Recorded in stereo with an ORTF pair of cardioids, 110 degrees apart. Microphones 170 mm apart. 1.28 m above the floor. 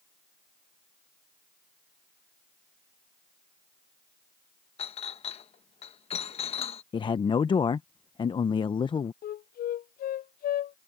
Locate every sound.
4.8 s a clink: 40° left
6.9 s a man speaking: 30° left
9.2 s a flute: 60° left